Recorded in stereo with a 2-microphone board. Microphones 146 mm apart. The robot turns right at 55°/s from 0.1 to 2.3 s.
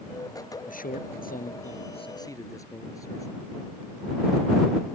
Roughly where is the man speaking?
Ahead left.